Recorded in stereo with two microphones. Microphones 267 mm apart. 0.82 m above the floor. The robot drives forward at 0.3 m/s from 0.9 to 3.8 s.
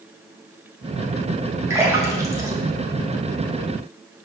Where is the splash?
10° right (ahead or behind), 0.8 m.